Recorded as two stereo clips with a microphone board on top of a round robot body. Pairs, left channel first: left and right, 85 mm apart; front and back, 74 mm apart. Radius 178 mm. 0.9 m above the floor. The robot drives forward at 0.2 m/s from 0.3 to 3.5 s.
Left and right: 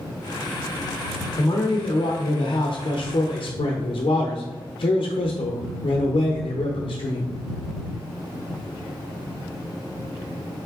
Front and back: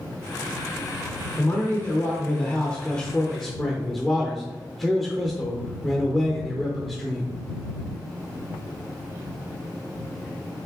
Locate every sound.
1.4 s a man speaking: 55° left, 0.8 m; by 7.3 s 90° left, 0.7 m